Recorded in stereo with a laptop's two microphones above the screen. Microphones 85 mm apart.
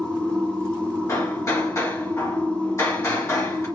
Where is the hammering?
35° left (ahead or behind), 1.1 m.